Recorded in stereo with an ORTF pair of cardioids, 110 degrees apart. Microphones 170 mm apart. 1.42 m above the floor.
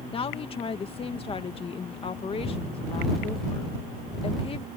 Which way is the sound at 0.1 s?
35° left.